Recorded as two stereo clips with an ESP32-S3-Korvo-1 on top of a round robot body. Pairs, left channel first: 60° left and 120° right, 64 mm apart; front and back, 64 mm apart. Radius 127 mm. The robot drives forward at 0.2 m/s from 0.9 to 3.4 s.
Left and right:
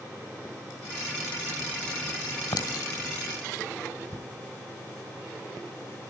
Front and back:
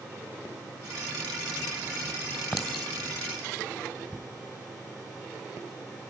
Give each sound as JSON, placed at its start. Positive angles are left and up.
{"t": 2.5, "sound": "a clink", "azimuth_deg": 90, "distance_m": 2.5}